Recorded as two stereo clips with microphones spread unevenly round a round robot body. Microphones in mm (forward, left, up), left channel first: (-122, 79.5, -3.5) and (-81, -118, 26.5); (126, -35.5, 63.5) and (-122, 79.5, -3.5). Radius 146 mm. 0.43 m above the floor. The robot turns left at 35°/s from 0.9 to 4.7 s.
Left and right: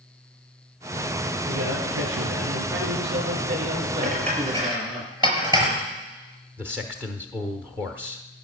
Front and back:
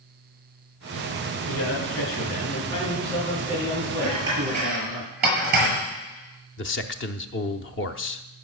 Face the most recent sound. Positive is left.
turn(degrees=10)